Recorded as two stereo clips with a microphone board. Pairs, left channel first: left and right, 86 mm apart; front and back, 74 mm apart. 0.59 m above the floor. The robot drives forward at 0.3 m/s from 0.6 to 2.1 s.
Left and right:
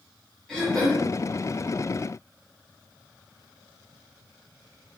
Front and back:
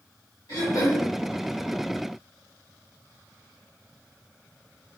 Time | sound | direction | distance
0.5 | throat clearing | 5° left | 1.7 m